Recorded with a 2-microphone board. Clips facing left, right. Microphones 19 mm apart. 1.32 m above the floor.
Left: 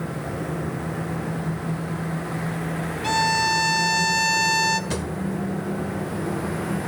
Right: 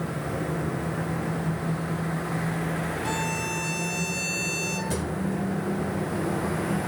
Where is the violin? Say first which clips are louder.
Left 13 dB; 45° left (ahead or behind), 0.7 m.